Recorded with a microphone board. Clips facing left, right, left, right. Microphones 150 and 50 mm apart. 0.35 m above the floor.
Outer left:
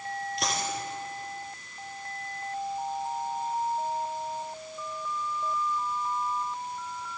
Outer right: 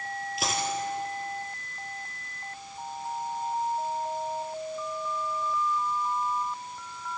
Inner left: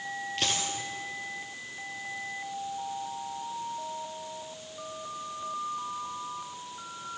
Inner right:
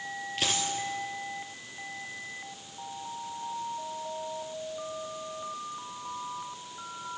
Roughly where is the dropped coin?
Centre.